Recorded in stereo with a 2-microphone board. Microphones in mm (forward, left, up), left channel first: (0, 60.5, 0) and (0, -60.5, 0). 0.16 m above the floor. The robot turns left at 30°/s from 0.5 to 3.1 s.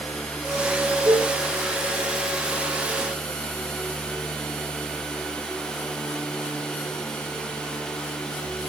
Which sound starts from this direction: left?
A cowbell, at 1.1 s.